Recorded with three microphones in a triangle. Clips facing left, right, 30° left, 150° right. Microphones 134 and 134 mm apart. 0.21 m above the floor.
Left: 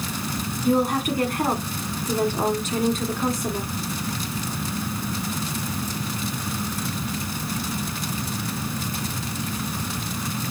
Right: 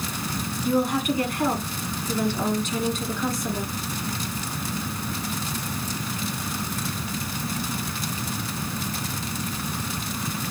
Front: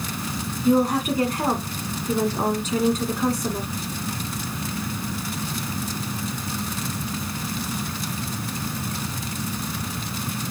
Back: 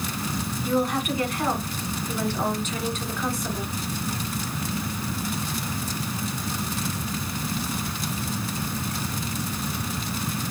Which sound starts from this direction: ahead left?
A woman speaking, at 0.7 s.